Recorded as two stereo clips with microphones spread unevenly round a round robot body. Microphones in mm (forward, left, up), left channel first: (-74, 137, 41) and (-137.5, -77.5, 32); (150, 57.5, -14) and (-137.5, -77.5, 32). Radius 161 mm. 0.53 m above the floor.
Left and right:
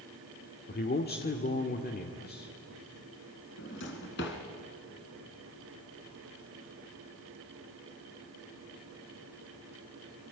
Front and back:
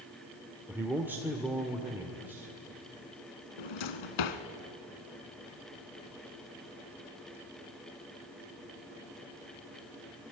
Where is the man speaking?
115° left, 1.7 m.